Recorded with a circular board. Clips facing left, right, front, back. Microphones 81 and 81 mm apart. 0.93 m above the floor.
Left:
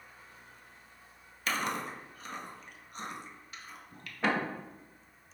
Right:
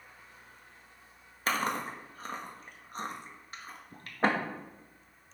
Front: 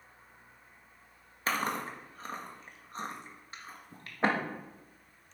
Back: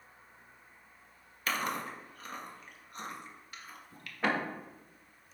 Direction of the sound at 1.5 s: 50° right.